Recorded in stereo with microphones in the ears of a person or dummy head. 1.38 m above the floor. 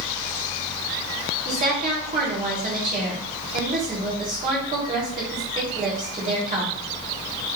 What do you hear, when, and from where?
1.4 s a woman speaking: 45° right (ahead or behind), 1.4 m